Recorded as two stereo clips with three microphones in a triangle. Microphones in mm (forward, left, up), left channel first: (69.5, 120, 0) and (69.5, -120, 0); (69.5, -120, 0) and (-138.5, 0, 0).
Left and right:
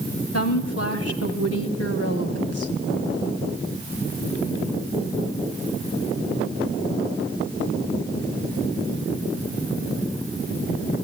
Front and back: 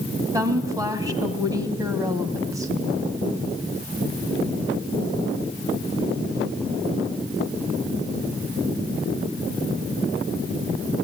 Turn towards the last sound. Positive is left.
turn(degrees=75)